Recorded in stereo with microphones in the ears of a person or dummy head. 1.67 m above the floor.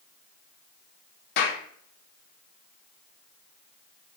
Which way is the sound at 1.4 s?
65° left (ahead or behind).